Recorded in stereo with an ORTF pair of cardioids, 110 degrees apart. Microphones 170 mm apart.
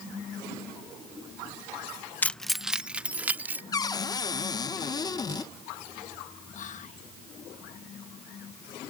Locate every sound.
2.2 s keys jangling: 10° left; by 3.6 s 10° right
3.7 s a cupboard door: 25° left
6.5 s whispering: 50° left